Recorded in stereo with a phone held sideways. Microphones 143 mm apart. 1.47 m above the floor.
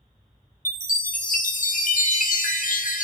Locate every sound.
0.7 s a chime: 65° left (ahead or behind), 0.5 m